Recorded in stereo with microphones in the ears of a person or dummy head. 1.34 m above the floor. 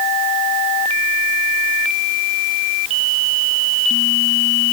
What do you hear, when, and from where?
Only background noise.